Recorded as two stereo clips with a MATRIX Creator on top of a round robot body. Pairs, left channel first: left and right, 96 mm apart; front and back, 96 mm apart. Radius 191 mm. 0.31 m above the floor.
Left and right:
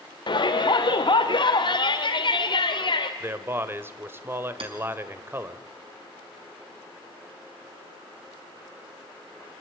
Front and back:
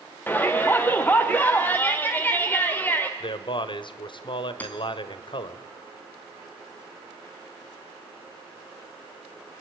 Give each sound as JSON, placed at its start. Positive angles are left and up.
{"t": 0.3, "sound": "a shout", "azimuth_deg": 70, "distance_m": 1.4}
{"t": 3.2, "sound": "a man speaking", "azimuth_deg": -25, "distance_m": 1.7}
{"t": 4.6, "sound": "hammering", "azimuth_deg": -75, "distance_m": 3.0}